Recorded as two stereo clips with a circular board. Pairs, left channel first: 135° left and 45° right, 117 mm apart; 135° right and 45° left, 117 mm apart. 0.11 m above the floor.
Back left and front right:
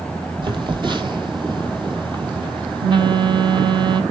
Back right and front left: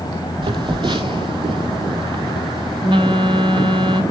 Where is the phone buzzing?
Straight ahead, 1.3 m.